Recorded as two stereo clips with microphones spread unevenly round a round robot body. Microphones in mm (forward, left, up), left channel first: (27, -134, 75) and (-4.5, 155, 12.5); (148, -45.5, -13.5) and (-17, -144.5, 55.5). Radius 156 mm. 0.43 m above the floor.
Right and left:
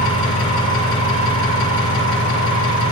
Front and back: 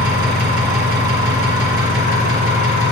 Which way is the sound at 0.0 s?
160° right.